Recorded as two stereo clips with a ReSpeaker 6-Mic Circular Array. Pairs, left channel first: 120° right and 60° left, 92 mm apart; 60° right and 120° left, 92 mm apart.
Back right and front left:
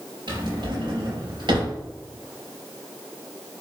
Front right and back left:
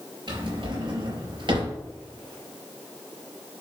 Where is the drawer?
90° left, 3.5 m.